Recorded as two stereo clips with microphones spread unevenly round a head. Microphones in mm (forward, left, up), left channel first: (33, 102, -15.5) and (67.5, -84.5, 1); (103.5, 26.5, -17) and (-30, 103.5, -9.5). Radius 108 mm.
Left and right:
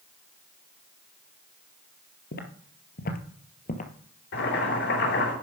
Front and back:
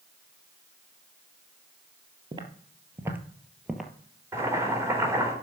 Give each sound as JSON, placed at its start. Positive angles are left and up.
{"t": 2.3, "sound": "footsteps", "azimuth_deg": 105, "distance_m": 1.7}
{"t": 4.3, "sound": "boiling", "azimuth_deg": 80, "distance_m": 4.0}